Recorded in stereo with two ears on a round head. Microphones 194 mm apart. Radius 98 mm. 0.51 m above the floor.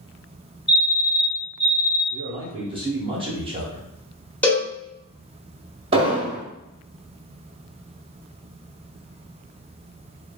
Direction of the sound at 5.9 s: 25° right (ahead or behind).